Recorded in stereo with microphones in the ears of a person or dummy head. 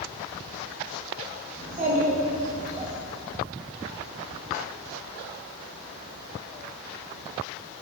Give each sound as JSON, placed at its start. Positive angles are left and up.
{"t": 1.6, "sound": "a child speaking", "side_deg": -45, "distance_m": 1.8}